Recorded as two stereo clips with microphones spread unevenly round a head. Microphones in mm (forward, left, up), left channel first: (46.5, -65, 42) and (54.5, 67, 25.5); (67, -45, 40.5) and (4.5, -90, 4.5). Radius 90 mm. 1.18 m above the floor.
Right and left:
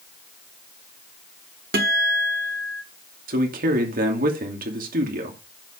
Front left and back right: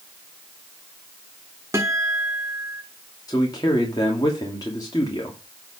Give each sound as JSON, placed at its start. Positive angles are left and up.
{"t": 1.7, "sound": "a guitar", "azimuth_deg": 130, "distance_m": 1.1}
{"t": 3.3, "sound": "a man speaking", "azimuth_deg": 105, "distance_m": 2.5}